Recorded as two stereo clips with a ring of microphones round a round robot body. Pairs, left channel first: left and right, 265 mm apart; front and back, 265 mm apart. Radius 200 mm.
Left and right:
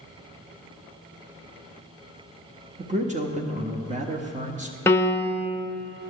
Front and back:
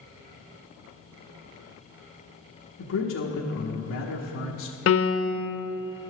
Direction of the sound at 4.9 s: 10° left.